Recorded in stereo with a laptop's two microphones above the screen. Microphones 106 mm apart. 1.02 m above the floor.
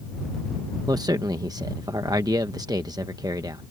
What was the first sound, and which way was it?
A man speaking, 35° right (ahead or behind).